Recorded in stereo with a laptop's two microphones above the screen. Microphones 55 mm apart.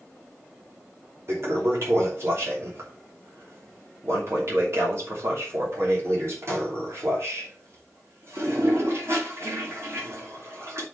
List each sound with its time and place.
1.3 s a toilet flushing: 55° right (ahead or behind), 3 m